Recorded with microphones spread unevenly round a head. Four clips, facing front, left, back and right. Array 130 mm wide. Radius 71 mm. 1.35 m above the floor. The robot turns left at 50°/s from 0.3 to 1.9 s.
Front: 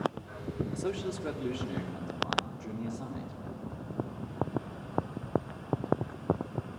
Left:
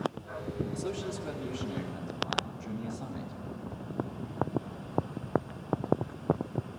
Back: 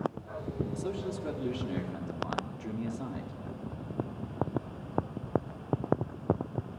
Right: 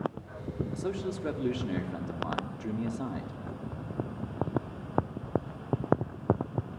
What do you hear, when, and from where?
0.7 s a man speaking: 20° right, 4 m; by 3.3 s 80° right, 4 m